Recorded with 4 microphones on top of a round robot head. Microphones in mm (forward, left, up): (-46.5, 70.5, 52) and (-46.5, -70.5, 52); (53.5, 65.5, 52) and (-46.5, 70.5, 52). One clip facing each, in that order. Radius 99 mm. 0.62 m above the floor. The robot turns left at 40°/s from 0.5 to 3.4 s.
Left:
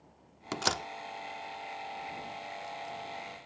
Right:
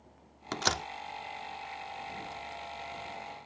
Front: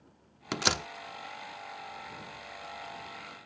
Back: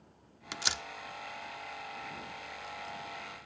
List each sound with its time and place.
0.5 s a door slam: 10° left; by 0.9 s 5° right